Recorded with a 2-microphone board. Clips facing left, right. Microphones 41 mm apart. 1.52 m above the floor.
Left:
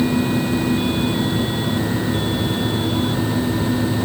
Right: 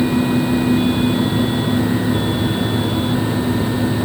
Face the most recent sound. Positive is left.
No sound to turn to.